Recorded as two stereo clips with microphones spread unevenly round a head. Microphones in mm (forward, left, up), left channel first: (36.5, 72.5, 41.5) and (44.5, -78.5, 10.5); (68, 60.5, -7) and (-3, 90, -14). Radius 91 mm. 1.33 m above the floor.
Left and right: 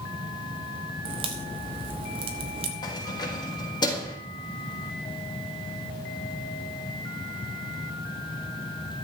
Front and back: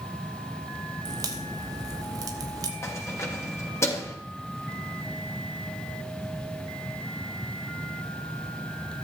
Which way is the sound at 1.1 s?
155° right.